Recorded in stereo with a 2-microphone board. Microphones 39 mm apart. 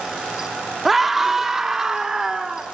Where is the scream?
5° right (ahead or behind), 1.0 m; by 2.6 s 15° right (ahead or behind), 1.8 m.